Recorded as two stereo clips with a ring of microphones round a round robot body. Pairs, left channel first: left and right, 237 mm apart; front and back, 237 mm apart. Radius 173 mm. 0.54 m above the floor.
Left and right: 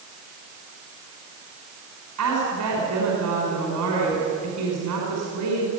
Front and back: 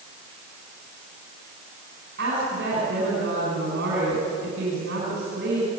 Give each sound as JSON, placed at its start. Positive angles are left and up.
{"t": 2.2, "sound": "a woman speaking", "azimuth_deg": -120, "distance_m": 5.0}